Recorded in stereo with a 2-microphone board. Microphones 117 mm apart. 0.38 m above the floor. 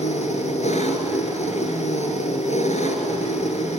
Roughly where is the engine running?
Left.